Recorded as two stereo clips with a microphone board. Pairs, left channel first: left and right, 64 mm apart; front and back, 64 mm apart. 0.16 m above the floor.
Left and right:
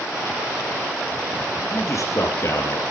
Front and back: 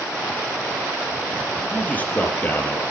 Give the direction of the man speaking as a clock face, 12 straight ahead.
10 o'clock.